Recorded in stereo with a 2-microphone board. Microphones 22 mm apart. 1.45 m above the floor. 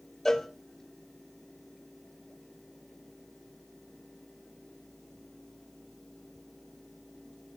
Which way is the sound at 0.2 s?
20° left (ahead or behind).